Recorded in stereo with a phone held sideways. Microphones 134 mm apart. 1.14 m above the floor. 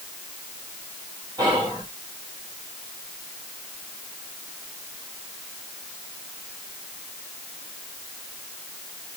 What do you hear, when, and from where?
1.4 s whispering: 30° right (ahead or behind), 1.7 m